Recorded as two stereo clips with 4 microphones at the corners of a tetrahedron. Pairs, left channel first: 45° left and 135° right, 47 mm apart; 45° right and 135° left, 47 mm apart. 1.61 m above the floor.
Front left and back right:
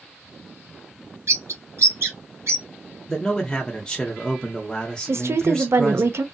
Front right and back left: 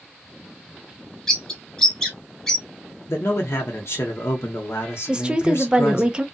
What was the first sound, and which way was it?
A bird, 125° right.